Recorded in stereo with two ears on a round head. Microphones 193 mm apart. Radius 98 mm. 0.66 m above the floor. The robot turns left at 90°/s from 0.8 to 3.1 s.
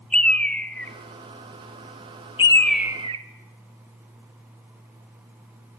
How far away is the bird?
About 1.2 m.